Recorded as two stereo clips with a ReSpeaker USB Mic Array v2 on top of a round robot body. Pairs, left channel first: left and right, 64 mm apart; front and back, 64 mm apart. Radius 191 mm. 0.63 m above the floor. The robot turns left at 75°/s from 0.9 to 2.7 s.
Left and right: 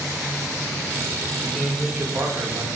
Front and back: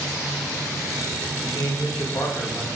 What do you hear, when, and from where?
1.4 s a man speaking: 25° left, 2.5 m; by 2.8 s 70° right, 2.5 m